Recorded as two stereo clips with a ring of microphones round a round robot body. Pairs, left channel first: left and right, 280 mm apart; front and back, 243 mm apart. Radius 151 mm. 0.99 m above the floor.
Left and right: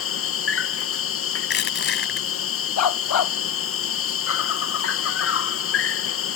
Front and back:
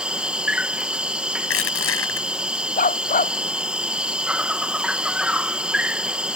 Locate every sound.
0.0 s an insect: 95° left
1.4 s crushing: 35° left
2.8 s a dog barking: 60° left